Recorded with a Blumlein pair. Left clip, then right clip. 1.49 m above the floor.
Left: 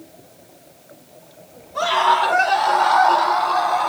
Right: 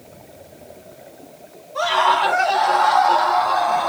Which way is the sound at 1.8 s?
Straight ahead.